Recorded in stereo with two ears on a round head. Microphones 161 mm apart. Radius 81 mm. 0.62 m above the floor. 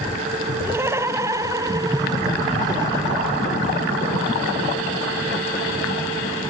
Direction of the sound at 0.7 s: 15° right (ahead or behind).